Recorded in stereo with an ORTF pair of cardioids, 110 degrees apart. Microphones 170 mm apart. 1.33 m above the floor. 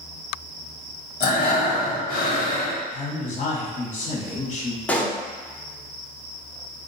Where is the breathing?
65° left, 1.4 m.